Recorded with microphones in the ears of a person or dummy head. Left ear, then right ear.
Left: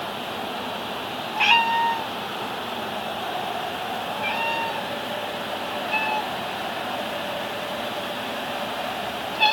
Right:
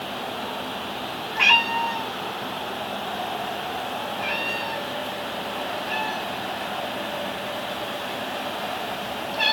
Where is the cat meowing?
40° right (ahead or behind), 1.4 m.